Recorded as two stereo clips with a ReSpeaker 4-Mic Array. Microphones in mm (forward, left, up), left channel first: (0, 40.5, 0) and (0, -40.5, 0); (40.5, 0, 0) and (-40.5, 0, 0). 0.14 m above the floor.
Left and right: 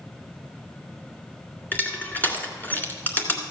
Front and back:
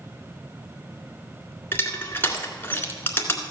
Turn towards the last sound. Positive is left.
turn(degrees=40)